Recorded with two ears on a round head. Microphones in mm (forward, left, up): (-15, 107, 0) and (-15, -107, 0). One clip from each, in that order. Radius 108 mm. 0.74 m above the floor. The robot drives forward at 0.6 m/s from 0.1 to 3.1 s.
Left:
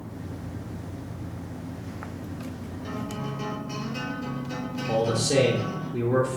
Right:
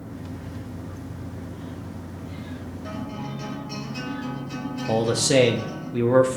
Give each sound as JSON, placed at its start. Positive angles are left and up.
{"t": 2.8, "sound": "a guitar", "side_deg": 5, "distance_m": 3.5}
{"t": 4.9, "sound": "a man speaking", "side_deg": -40, "distance_m": 0.5}